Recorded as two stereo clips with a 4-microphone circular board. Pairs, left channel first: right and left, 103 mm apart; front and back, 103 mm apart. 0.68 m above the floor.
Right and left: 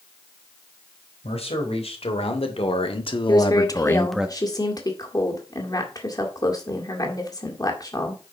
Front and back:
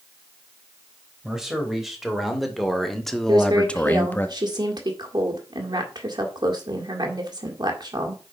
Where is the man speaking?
95° right, 3.5 m; by 4.3 s 30° left, 0.8 m.